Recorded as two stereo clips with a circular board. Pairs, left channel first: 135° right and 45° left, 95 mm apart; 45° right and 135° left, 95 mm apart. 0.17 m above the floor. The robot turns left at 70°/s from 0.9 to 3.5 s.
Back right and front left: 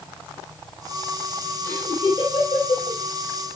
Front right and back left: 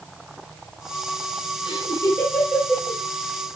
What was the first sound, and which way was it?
Laughter, 65° right.